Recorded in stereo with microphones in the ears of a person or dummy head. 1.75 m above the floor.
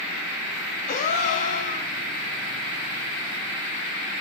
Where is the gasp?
45° left (ahead or behind), 0.5 m.